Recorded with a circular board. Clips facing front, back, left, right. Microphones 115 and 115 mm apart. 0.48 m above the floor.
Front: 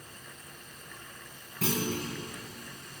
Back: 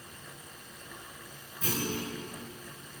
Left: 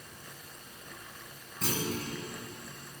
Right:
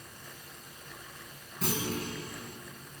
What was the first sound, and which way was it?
A clunk, straight ahead.